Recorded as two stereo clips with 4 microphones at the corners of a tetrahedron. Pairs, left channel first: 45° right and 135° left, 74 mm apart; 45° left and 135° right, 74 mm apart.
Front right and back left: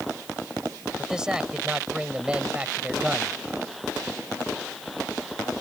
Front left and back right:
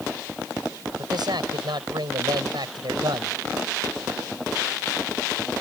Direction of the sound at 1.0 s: 145° right.